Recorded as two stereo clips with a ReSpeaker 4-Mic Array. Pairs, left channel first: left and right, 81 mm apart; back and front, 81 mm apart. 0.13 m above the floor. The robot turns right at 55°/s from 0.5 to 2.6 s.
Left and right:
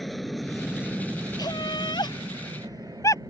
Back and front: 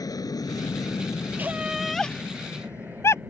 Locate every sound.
0.0 s an aircraft: straight behind; by 3.3 s 60° right
1.4 s laughter: 65° left; by 3.2 s 130° left